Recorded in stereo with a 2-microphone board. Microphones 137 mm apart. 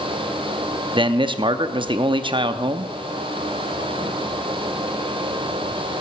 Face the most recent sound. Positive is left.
turn(degrees=-35)  # may be behind; listen again after turning